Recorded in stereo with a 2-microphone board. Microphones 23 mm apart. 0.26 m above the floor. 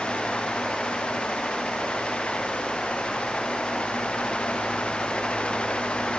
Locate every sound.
Only background noise.